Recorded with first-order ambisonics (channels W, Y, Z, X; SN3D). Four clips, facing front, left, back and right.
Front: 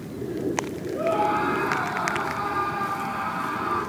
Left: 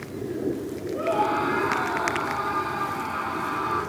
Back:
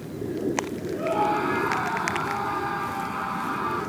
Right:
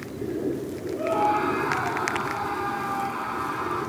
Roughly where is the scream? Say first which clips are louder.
Right 1 dB, front 1 dB; left.